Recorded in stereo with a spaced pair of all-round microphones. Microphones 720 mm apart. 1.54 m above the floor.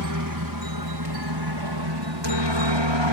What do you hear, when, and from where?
0.0 s a helicopter: 25° right (ahead or behind); by 3.1 s 40° right (ahead or behind)